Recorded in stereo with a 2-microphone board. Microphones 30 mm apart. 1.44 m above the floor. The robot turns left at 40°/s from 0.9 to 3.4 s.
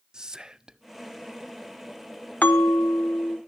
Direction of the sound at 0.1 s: 20° right (ahead or behind).